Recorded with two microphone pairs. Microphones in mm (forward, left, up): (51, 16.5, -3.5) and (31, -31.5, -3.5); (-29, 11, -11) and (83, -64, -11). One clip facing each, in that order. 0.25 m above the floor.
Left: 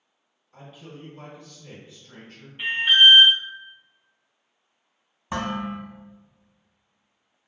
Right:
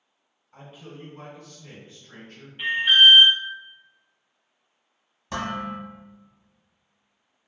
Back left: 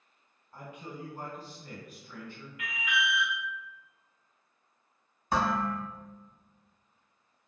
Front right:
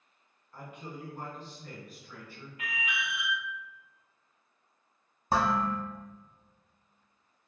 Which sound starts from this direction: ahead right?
An alarm, at 2.6 s.